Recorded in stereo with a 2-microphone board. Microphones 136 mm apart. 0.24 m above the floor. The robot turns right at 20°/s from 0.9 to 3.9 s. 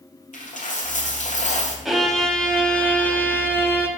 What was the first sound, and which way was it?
A dropped coin, 75° left (ahead or behind).